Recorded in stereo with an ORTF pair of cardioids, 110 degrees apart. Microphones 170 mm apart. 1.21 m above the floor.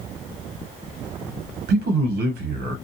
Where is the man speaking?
70° right, 0.8 m.